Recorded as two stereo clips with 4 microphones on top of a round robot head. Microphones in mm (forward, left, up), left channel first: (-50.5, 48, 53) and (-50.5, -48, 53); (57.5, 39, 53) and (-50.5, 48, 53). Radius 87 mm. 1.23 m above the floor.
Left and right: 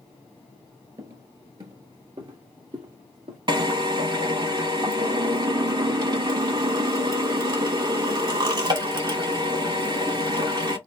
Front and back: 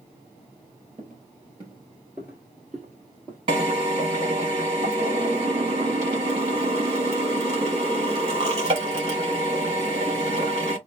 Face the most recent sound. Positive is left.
turn(degrees=-130)